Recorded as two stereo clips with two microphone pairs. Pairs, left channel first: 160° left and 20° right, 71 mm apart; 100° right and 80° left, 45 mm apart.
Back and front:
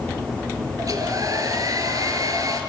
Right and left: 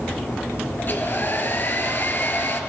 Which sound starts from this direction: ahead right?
A hair dryer, at 0.8 s.